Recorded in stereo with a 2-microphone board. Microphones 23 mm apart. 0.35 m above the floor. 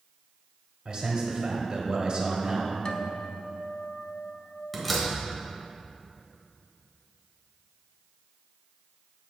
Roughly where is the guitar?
Left.